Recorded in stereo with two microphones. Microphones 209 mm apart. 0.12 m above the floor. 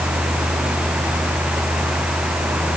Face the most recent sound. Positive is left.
No sound to turn to.